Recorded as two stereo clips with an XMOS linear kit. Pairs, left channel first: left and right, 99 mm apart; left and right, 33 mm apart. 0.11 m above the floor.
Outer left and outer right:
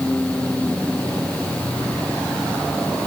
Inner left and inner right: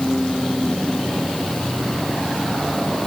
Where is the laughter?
I don't hear laughter.